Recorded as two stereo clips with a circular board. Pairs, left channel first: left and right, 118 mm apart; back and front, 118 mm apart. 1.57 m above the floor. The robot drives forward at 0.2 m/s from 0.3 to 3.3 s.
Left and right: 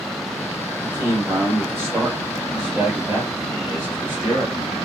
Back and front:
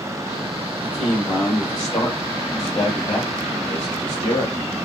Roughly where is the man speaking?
Behind right.